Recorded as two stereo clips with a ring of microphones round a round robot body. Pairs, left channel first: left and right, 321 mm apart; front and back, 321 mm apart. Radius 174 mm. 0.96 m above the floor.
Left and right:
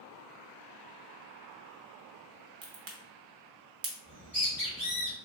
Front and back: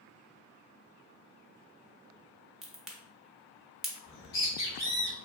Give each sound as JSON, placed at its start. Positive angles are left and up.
{"t": 2.6, "sound": "a crack", "azimuth_deg": -90, "distance_m": 0.9}
{"t": 4.0, "sound": "a bird", "azimuth_deg": -5, "distance_m": 1.9}